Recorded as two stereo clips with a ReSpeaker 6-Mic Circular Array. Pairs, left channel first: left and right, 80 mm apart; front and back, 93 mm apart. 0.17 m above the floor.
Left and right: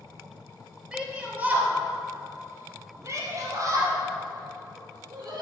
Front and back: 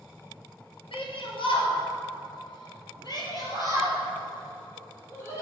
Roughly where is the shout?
Ahead.